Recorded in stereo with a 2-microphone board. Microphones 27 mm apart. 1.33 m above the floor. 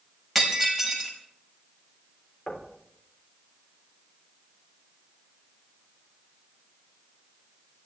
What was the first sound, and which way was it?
Breaking glass, centre (ahead or behind).